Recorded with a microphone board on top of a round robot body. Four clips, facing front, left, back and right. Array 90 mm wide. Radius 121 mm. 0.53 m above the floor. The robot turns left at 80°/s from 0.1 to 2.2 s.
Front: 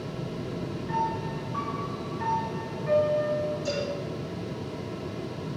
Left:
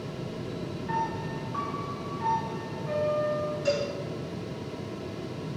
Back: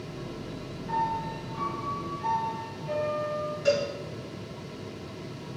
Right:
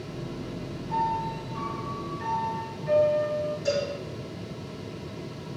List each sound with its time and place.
0.9 s a piano: 115° left, 5.5 m; by 3.5 s 5° left, 5.5 m
3.6 s a cowbell: 155° left, 4.5 m